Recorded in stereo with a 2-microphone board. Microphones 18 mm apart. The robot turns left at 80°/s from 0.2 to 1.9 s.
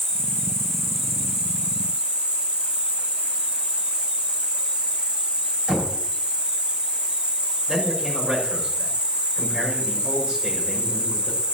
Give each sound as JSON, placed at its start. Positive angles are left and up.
{"t": 0.0, "sound": "an insect", "azimuth_deg": 55, "distance_m": 2.5}
{"t": 5.7, "sound": "knocking", "side_deg": -65, "distance_m": 6.0}
{"t": 7.7, "sound": "a man speaking", "side_deg": -50, "distance_m": 6.0}